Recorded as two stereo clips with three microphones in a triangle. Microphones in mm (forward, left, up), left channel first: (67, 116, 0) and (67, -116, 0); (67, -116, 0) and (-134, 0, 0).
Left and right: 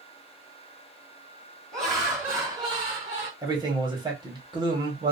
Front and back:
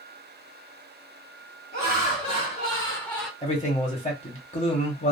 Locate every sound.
1.7 s laughter: straight ahead, 2.0 m; by 3.3 s 120° right, 1.7 m
3.4 s a man speaking: 40° right, 1.1 m